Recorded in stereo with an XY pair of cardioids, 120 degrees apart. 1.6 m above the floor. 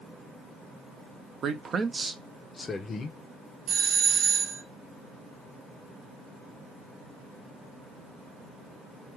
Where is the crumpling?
I don't hear crumpling.